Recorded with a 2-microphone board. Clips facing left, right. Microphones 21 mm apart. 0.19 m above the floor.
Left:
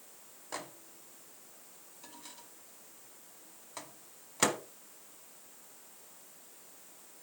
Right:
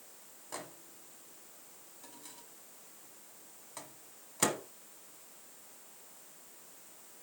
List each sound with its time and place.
0.5 s a microwave: 20° left (ahead or behind), 1.0 m